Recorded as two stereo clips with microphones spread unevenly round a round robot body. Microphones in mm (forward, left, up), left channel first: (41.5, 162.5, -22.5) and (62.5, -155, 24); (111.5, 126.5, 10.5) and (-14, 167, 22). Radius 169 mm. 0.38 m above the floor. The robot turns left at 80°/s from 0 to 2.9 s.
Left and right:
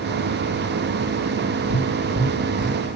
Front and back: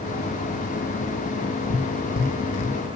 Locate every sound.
1.7 s tapping: 25° left, 7.5 m; by 2.8 s 60° right, 7.5 m